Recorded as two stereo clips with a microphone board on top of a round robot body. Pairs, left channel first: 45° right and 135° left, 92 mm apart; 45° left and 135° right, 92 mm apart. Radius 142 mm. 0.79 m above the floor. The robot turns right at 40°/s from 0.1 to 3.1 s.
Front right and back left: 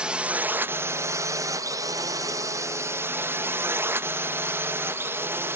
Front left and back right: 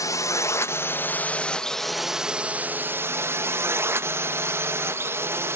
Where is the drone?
60° left; by 5.6 s straight behind.